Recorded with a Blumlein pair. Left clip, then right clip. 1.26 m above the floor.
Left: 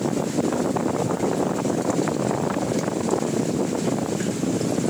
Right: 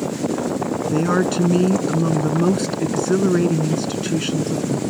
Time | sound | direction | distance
0.9 | a woman speaking | 40° right | ?